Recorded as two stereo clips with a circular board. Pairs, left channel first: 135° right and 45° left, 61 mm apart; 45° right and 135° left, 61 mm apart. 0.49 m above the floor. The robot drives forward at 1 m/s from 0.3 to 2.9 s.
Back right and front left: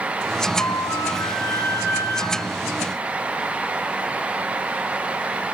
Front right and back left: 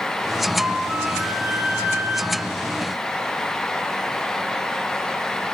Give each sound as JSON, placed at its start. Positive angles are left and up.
{"t": 0.6, "sound": "a flute", "azimuth_deg": -160, "distance_m": 3.5}